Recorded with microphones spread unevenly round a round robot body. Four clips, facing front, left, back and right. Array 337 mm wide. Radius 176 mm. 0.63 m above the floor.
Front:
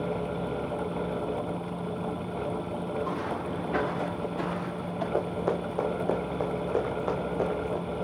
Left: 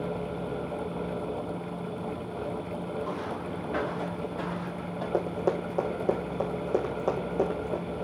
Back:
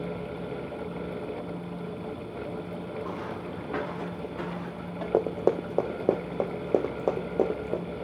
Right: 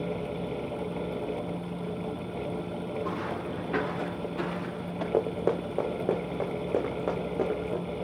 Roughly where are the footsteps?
Behind right.